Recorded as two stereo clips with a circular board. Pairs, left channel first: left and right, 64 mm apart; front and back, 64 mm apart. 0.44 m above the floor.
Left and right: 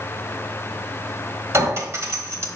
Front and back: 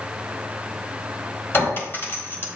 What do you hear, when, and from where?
1.5 s a clink: 50° right, 1.4 m